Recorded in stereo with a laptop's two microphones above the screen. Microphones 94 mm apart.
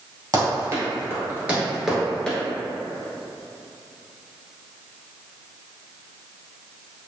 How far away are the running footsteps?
About 1.4 m.